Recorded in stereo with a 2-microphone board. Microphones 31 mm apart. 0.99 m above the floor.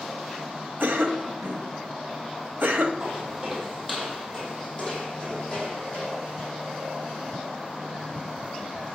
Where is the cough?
75° right (ahead or behind), 0.9 m.